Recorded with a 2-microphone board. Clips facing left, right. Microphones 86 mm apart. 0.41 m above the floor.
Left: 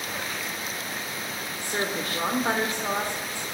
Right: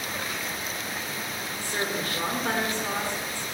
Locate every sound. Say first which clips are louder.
1.6 s a woman speaking: left 1 dB; 15° left (ahead or behind), 1.3 m